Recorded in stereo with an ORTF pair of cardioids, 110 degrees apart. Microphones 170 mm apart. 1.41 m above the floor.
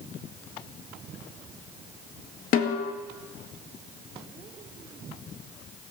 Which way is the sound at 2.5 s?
55° left.